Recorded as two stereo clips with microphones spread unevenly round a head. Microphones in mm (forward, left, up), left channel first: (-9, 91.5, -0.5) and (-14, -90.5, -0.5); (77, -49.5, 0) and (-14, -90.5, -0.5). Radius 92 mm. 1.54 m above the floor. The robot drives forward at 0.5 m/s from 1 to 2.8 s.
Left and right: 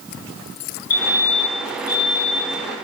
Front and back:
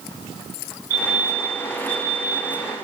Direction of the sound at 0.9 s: 125° left.